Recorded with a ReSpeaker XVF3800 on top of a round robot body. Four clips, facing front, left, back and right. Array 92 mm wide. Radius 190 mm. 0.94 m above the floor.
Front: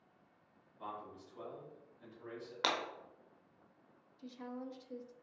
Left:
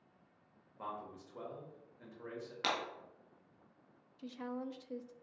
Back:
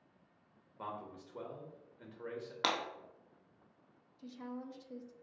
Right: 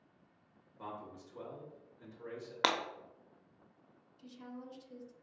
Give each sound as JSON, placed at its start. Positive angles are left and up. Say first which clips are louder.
{"t": 0.8, "sound": "a man speaking", "louder": "left 1 dB, back 2 dB", "azimuth_deg": 150, "distance_m": 1.3}
{"t": 2.6, "sound": "breaking glass", "louder": "right 5 dB, back 1 dB", "azimuth_deg": -90, "distance_m": 0.5}
{"t": 4.2, "sound": "a woman speaking", "louder": "left 6 dB, even", "azimuth_deg": 90, "distance_m": 0.6}